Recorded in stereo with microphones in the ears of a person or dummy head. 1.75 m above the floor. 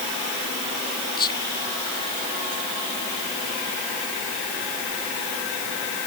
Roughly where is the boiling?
I don't hear boiling.